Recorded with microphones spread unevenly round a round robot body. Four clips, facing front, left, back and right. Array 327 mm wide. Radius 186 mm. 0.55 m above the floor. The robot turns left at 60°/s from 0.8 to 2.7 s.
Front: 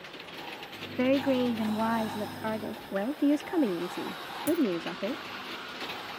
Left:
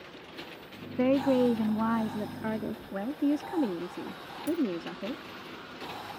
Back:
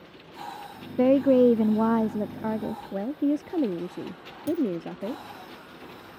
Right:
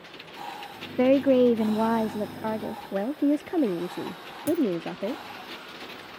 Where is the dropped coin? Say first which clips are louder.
Right 5 dB, back 1 dB; 80° right.